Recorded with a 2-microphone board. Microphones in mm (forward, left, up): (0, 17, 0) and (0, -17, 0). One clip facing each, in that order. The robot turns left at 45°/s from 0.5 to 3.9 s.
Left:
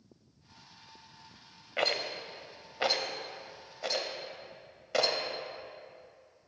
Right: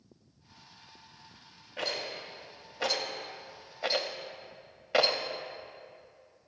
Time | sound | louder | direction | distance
1.8 | a rattle | left 4 dB | 65° left (ahead or behind) | 0.7 m